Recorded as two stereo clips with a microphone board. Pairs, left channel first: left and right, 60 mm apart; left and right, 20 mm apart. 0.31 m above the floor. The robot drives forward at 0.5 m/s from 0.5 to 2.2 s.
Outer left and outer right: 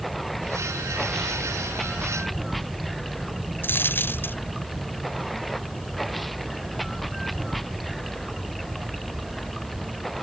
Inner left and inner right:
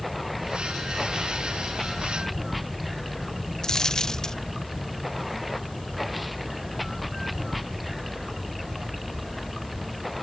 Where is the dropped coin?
35° left (ahead or behind).